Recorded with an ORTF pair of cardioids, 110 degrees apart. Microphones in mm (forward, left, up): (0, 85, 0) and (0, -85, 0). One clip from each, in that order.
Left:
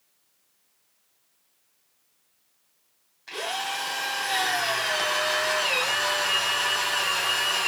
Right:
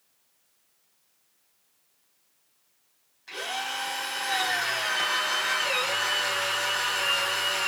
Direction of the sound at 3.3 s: 25° left.